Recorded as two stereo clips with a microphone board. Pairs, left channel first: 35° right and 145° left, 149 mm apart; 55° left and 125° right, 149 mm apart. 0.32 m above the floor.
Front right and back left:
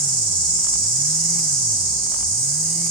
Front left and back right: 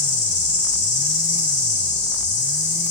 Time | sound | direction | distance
0.0 | an insect | 20° left | 1.0 m